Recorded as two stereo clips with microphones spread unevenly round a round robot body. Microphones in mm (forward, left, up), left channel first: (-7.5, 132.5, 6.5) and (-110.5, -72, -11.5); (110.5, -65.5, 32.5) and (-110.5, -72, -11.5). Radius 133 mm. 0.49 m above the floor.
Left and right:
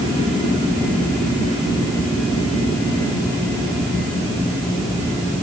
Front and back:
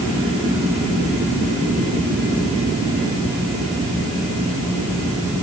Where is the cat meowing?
I don't hear a cat meowing.